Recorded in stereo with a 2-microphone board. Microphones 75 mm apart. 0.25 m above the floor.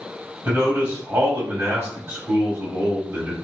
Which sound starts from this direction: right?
A man speaking, at 0.5 s.